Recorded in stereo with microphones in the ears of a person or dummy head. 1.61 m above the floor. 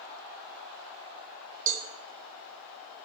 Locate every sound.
1.7 s a cowbell: 45° right (ahead or behind), 1.1 m